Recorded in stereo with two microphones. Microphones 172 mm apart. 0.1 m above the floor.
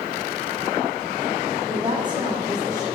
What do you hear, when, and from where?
1.7 s a woman speaking: 30° right (ahead or behind), 4 m; by 2.9 s 20° right (ahead or behind), 5 m